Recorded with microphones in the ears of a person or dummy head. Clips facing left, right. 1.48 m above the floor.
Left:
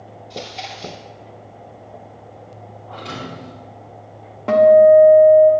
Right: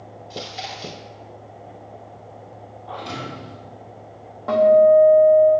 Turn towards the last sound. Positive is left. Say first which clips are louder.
# left 4 dB
turn(degrees=35)  # may be behind; listen again after turning